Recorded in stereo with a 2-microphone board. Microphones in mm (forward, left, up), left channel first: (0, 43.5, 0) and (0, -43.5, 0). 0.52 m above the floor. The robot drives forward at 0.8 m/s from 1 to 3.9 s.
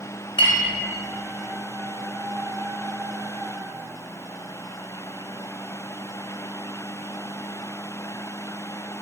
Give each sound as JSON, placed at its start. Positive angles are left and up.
{"t": 0.4, "sound": "a clink", "side_deg": 75, "distance_m": 2.0}